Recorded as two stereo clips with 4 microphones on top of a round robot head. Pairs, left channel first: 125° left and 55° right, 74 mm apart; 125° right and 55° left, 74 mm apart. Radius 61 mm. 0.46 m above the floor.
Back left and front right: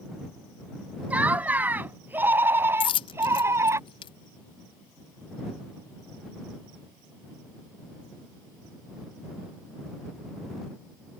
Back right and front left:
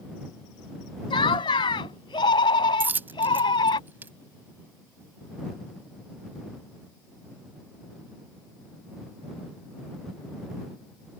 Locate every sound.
1.1 s laughter: 125° right; by 3.8 s 105° right
2.8 s a dropped coin: 120° left